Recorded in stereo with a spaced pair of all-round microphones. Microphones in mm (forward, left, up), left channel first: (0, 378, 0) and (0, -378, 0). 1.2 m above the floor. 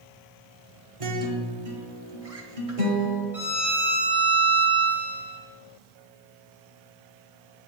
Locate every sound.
1.0 s a guitar: 45° right (ahead or behind), 1.2 m
3.3 s a violin: centre (ahead or behind), 1.7 m